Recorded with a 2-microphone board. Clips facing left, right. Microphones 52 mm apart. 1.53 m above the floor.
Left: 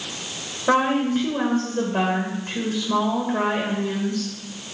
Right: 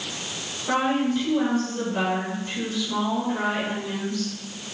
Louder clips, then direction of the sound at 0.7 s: Left 3 dB; 50° left (ahead or behind).